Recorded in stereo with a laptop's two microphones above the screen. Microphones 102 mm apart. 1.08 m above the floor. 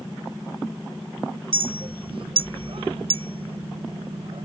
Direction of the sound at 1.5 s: 70° right (ahead or behind).